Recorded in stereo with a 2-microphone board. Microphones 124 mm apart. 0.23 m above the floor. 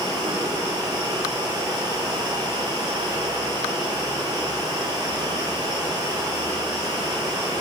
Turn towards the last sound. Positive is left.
turn(degrees=-35)  # may be behind; listen again after turning